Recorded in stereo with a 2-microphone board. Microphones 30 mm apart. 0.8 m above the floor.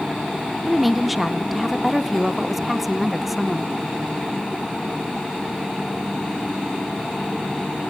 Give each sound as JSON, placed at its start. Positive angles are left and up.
{"t": 0.7, "sound": "a woman speaking", "side_deg": -5, "distance_m": 0.6}